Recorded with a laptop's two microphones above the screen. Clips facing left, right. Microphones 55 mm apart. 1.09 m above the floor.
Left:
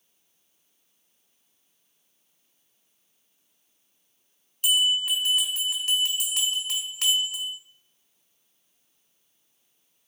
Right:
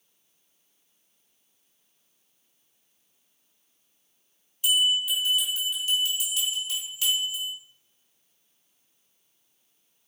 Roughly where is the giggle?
No giggle in this recording.